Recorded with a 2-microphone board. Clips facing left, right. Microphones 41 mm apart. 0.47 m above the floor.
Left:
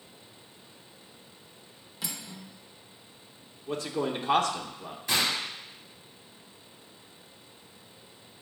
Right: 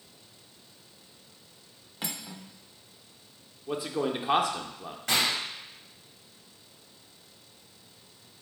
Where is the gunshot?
65° right (ahead or behind), 3 m.